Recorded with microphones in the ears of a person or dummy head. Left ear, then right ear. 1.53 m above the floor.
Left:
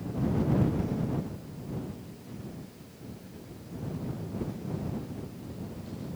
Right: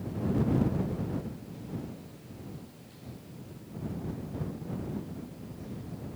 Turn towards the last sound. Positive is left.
No sound to turn to.